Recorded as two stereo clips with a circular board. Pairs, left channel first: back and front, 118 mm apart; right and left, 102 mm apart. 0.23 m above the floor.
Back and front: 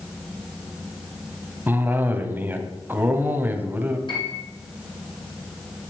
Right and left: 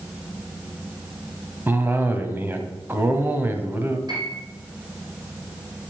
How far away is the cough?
About 1.3 m.